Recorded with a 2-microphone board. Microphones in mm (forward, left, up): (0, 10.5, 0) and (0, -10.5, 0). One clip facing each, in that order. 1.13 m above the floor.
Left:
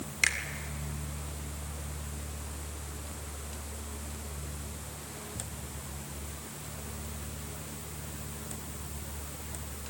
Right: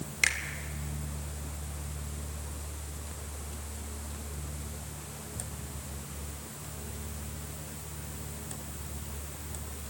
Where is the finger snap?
Centre (ahead or behind), 2 m.